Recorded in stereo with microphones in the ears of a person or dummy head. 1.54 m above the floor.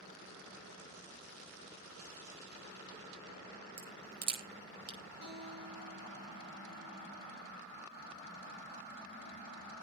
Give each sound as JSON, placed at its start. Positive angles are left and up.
{"t": 3.8, "sound": "a crack", "side_deg": -80, "distance_m": 9.5}
{"t": 5.2, "sound": "a guitar", "side_deg": -50, "distance_m": 9.0}